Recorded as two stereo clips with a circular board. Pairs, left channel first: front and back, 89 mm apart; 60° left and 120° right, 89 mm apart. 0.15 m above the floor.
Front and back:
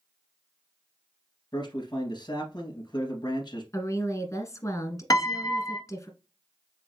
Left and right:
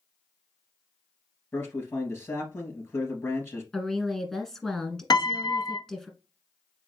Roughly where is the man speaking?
Ahead.